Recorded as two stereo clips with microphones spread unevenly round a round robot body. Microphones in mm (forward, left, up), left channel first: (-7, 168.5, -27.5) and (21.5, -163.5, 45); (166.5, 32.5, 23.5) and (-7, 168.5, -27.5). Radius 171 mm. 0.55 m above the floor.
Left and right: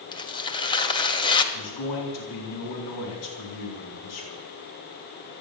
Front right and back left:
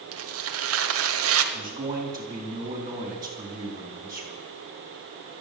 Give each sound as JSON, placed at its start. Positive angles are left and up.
{"t": 0.1, "sound": "tearing paper", "azimuth_deg": 170, "distance_m": 1.2}
{"t": 1.5, "sound": "a man speaking", "azimuth_deg": 70, "distance_m": 4.0}